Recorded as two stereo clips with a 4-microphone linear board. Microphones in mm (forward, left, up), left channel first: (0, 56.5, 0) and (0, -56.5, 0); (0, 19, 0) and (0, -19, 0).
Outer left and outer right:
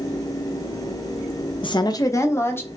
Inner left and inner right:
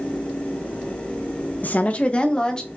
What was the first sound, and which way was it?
A woman speaking, 45° left (ahead or behind).